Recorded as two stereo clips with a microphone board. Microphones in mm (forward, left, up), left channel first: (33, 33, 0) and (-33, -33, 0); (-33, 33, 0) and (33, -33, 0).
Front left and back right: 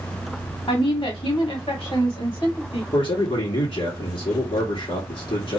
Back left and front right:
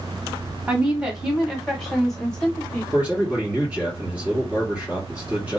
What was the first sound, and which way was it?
A woman speaking, 30° left.